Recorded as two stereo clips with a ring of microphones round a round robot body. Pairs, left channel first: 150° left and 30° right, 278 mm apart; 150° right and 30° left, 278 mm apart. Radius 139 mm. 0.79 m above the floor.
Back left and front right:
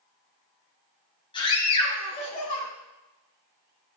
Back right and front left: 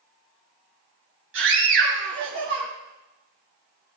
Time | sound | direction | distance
1.3 | a scream | 75° left | 7 m